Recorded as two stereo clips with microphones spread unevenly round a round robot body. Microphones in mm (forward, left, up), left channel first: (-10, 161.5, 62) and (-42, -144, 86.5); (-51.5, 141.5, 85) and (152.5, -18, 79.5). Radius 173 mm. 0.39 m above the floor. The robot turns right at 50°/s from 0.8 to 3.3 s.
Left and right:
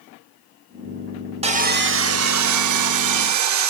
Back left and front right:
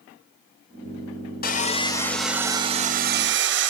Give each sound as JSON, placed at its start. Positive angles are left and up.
{"t": 1.4, "sound": "sawing", "azimuth_deg": -165, "distance_m": 1.0}